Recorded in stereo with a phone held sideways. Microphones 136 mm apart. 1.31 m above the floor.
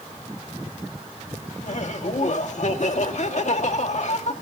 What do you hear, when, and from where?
1.6 s laughter: 60° left (ahead or behind), 2.0 m